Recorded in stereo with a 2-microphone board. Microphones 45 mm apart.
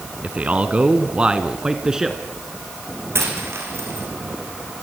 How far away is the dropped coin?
About 4.5 m.